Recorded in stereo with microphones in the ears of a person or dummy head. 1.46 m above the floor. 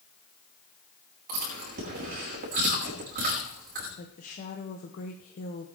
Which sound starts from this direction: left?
A woman speaking, at 4.0 s.